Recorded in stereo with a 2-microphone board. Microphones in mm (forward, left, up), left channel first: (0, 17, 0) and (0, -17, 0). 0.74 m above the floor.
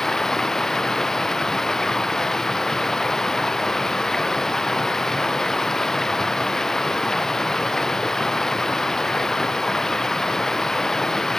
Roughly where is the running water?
Centre.